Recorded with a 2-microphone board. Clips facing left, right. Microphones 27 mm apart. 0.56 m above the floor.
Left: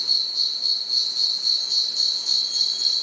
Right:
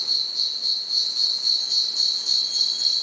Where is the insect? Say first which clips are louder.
Left 1 dB; 10° left (ahead or behind), 1.2 m.